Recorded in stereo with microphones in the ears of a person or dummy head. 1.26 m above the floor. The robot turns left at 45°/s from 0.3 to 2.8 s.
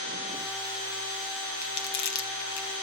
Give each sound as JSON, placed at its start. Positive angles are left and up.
{"t": 1.6, "sound": "crumpling", "side_deg": 40, "distance_m": 1.3}